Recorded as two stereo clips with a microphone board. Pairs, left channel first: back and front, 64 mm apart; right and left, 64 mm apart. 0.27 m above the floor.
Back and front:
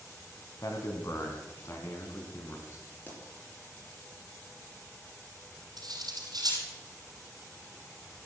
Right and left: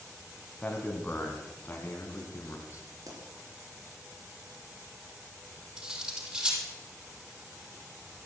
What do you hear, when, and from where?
0.6 s a man speaking: 160° right, 1.6 m; by 2.8 s 135° right, 2.5 m
3.1 s a pop: 115° left, 4 m
5.8 s cutlery clinking: 15° left, 5 m